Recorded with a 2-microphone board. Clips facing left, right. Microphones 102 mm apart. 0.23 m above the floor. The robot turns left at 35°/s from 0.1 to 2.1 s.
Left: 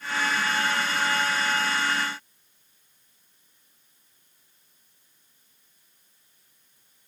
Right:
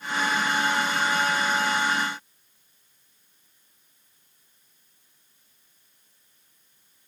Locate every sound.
Only background noise.